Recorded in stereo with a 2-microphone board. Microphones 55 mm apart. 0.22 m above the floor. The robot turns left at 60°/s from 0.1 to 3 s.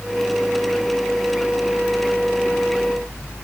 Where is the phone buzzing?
No phone buzzing in this recording.